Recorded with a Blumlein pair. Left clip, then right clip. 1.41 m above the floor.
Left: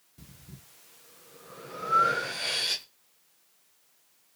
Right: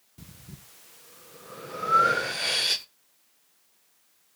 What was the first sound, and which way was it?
Breathing, 10° right.